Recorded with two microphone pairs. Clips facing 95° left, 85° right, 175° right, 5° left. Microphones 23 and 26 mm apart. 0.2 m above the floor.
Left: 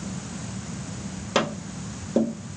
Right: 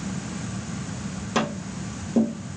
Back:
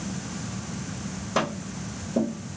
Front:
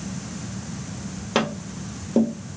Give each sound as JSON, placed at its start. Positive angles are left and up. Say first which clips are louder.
{"t": 1.4, "sound": "tapping", "louder": "left 1 dB, front 3 dB", "azimuth_deg": 30, "distance_m": 1.4}